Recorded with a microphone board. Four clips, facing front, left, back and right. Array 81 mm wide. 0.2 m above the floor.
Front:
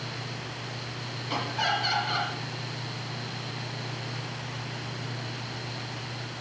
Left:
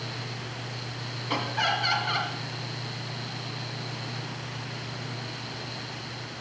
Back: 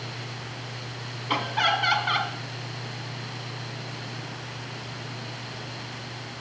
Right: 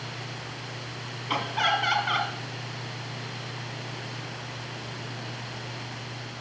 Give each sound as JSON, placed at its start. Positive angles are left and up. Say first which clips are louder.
{"t": 1.3, "sound": "laughter", "louder": "right 2 dB, back 4 dB", "azimuth_deg": -160, "distance_m": 2.0}